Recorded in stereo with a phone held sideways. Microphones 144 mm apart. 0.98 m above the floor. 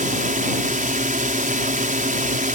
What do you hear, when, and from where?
0.0 s a drone: 65° right (ahead or behind)